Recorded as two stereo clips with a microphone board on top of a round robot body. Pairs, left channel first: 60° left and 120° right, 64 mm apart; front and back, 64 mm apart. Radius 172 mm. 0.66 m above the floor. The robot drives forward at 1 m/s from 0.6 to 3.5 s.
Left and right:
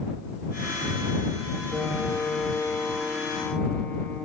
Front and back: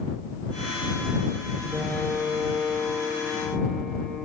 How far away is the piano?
About 4 m.